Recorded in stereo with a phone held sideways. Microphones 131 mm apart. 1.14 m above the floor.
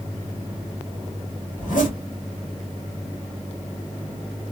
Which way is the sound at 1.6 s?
85° left.